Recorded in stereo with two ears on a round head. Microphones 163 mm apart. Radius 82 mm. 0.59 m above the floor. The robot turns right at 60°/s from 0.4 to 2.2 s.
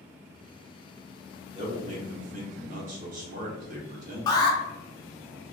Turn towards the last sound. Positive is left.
turn(degrees=20)  # may be behind; listen again after turning